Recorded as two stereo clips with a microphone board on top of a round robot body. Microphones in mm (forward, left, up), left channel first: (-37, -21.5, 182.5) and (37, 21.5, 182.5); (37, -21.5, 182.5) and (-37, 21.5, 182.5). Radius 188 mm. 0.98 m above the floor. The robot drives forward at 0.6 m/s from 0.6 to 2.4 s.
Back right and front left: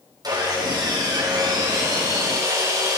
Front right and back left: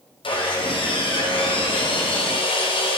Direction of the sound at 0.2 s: 15° right.